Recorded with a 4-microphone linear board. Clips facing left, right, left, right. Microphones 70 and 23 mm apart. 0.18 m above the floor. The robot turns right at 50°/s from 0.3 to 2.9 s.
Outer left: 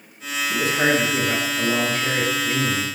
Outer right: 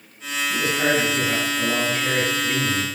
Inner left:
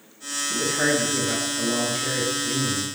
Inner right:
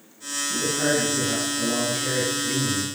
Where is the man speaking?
110° left, 1.7 m; by 2.9 s 130° right, 1.7 m.